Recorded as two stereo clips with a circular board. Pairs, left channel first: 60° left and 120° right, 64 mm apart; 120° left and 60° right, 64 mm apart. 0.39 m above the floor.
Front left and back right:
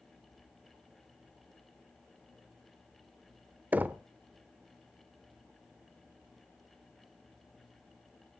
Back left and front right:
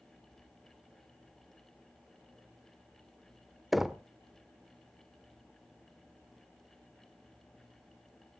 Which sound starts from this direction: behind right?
Knocking, at 3.7 s.